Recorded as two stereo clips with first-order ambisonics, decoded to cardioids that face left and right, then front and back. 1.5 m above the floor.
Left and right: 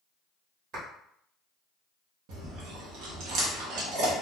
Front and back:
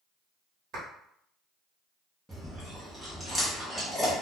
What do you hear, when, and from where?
0.7 s a clap: 135° right, 1.2 m
2.3 s chewing: 95° right, 0.9 m